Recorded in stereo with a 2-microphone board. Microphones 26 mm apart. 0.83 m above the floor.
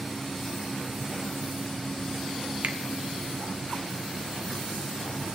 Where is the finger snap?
70° right (ahead or behind), 0.8 m.